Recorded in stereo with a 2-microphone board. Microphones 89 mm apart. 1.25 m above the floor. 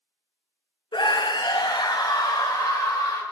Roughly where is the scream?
Left.